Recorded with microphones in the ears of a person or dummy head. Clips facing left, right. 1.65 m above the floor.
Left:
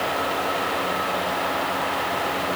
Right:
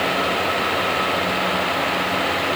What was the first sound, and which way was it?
Only background noise.